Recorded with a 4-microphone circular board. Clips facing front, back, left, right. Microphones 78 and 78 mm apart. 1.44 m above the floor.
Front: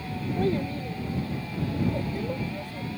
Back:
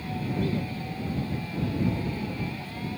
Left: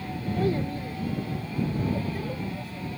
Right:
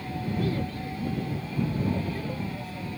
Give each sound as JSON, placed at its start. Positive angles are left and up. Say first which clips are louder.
{"t": 0.4, "sound": "a child speaking", "louder": "front 5 dB, left 5 dB", "azimuth_deg": 40}